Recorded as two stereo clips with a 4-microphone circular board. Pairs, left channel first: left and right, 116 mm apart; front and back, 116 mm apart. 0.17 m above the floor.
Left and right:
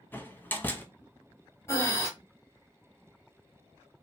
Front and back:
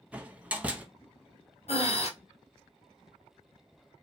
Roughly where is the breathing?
Ahead left.